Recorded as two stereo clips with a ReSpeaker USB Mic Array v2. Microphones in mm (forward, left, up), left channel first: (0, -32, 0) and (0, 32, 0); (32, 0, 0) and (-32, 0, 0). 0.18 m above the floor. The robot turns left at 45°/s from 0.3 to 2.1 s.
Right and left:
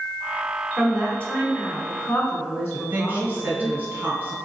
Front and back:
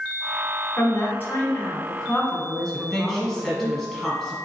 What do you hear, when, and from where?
0.8 s a woman speaking: 15° right, 1.4 m; by 3.7 s 75° right, 1.4 m
2.7 s a woman speaking: 85° left, 1.2 m